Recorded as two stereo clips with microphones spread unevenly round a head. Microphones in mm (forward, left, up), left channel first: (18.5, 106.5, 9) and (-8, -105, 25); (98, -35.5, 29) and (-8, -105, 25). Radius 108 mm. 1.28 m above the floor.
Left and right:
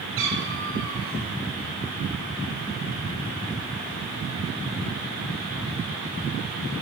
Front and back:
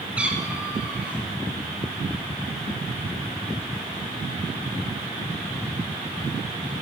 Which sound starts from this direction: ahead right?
A cat meowing, at 0.2 s.